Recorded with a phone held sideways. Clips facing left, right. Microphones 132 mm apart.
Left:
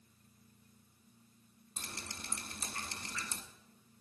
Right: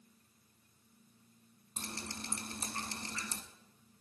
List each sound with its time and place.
1.8 s dripping: 35° right (ahead or behind), 1.3 m